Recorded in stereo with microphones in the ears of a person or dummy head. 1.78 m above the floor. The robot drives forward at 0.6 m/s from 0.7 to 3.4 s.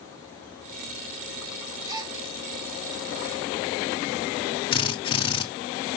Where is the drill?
30° left (ahead or behind), 0.8 m.